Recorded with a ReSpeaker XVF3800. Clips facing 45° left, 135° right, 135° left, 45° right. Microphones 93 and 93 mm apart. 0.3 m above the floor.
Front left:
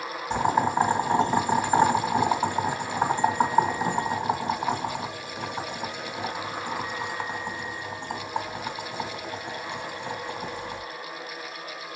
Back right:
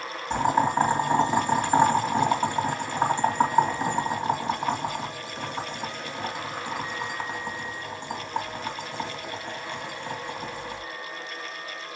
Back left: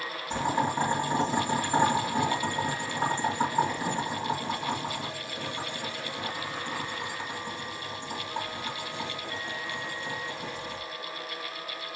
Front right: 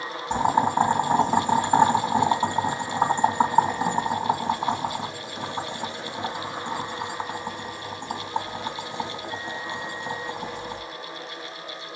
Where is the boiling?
40° right, 2 m.